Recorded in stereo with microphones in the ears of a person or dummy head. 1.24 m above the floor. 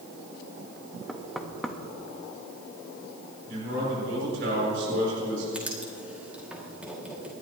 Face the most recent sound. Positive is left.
turn(degrees=0)  # may be behind; listen again after turning